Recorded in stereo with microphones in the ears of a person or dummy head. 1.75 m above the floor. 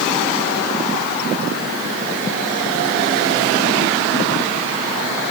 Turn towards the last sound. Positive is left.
No sound to turn to.